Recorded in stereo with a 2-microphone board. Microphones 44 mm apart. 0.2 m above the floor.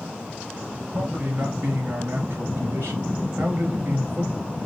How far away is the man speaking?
About 3 m.